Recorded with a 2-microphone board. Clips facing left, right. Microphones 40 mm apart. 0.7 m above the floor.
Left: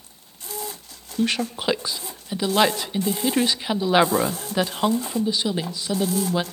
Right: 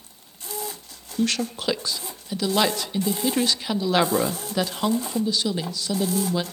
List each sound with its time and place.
1.2 s a woman speaking: 20° left (ahead or behind), 0.6 m